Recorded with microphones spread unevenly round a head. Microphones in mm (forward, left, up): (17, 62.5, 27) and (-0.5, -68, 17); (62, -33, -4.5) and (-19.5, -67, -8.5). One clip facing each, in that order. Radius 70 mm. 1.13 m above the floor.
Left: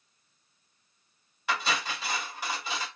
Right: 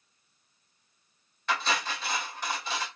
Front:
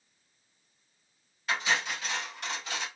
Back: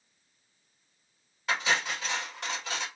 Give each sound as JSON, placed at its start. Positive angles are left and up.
{"t": 1.5, "sound": "cutlery clinking", "azimuth_deg": 165, "distance_m": 2.5}